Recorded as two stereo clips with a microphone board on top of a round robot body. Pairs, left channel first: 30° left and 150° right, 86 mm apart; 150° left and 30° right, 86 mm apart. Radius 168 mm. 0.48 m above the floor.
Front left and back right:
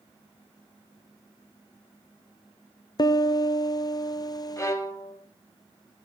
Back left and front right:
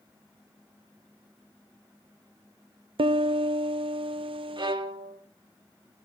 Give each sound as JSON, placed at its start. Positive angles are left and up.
{"t": 3.0, "sound": "a piano", "azimuth_deg": -15, "distance_m": 0.7}
{"t": 4.6, "sound": "a violin", "azimuth_deg": -20, "distance_m": 3.5}